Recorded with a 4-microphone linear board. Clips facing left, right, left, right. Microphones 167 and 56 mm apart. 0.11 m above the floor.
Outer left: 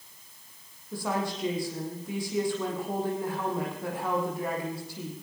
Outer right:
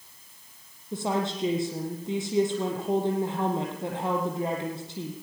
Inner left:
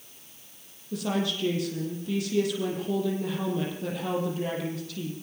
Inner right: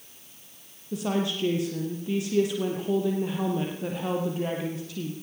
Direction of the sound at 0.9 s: 25° right (ahead or behind).